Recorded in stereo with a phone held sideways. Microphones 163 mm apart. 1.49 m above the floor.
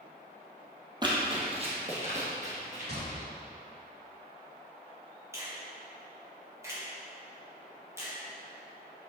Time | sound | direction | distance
1.0 | running footsteps | 25° right (ahead or behind) | 1.6 m
2.9 | a gunshot | 80° right | 1.7 m
5.3 | a finger snap | 15° right (ahead or behind) | 1.6 m